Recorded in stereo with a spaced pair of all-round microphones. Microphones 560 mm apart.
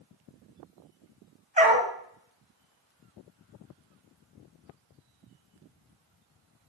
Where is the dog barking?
10° right (ahead or behind), 2.5 m.